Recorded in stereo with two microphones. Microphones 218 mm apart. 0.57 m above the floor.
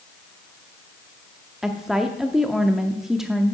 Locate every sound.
1.6 s a woman speaking: centre (ahead or behind), 0.7 m